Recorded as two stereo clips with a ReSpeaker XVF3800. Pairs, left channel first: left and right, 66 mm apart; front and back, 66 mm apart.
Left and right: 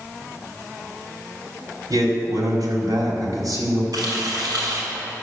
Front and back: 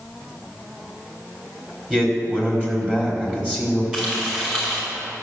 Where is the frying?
105° right, 5 m.